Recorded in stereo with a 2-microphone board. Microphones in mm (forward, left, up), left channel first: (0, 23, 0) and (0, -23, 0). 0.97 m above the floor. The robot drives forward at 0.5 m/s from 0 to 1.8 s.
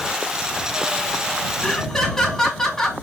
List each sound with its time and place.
1.6 s laughter: 5° left (ahead or behind), 2.0 m